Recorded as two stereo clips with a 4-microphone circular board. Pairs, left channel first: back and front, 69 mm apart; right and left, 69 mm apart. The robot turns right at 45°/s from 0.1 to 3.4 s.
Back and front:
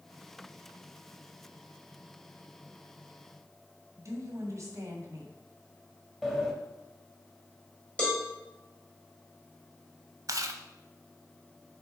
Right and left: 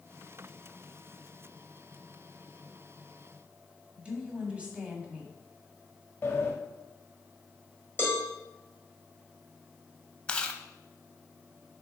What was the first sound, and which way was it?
A woman speaking, 20° left.